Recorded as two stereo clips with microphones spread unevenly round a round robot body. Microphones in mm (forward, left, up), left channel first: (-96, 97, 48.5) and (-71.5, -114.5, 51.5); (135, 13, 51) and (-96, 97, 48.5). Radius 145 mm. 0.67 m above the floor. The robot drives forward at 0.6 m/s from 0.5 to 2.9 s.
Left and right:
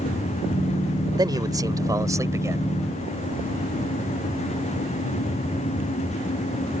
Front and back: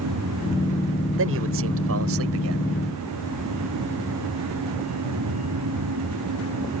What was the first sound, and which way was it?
A man speaking, 155° right.